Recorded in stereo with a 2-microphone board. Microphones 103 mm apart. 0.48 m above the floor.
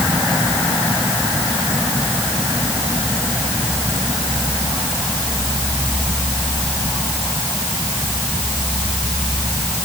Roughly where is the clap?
No clap in this recording.